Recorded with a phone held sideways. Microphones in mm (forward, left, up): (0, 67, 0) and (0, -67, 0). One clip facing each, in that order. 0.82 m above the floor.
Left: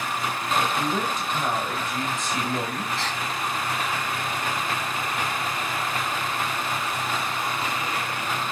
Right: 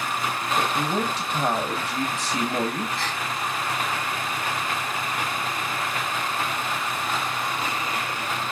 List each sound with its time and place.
0.6 s a woman speaking: 35° right (ahead or behind), 0.8 m
3.0 s a gasp: 80° left, 2.5 m